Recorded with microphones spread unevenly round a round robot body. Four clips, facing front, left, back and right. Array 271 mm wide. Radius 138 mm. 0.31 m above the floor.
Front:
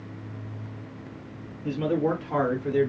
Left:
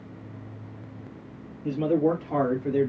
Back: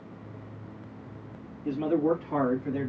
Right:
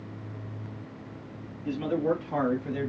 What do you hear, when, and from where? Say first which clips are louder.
1.6 s a man speaking: left 4 dB, even; 50° left, 3 m; by 2.9 s 45° left, 2.5 m